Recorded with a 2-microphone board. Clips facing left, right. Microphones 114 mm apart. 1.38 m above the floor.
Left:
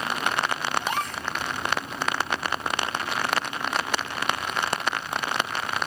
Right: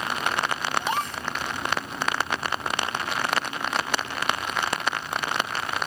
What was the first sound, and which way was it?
A gasp, 30° right (ahead or behind).